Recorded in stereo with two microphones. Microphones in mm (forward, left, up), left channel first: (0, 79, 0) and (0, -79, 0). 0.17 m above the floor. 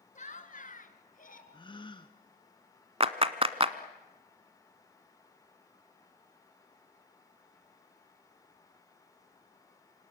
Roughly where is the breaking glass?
I don't hear breaking glass.